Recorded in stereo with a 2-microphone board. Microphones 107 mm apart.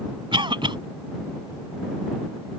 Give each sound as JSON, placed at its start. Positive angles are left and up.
{"t": 0.3, "sound": "a cough", "side_deg": -50}